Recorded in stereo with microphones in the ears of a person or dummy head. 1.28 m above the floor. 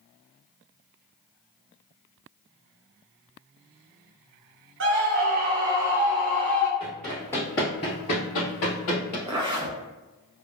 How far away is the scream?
About 0.9 m.